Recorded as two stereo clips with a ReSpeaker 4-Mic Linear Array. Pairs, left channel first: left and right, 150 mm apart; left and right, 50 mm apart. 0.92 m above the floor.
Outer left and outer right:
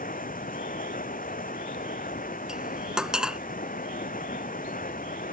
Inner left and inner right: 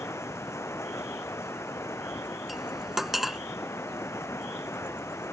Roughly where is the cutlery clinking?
Centre.